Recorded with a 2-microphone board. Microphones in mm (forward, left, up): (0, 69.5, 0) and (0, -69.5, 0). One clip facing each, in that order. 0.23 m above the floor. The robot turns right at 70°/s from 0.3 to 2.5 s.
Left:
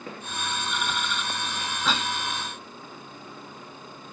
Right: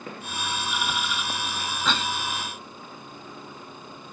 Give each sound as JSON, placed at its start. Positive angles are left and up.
{"t": 1.9, "sound": "a cough", "side_deg": 5, "distance_m": 1.1}